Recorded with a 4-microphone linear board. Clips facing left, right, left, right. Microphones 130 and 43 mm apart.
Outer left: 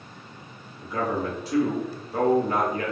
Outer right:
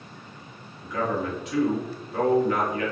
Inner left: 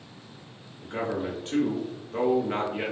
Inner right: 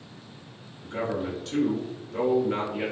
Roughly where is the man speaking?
Left.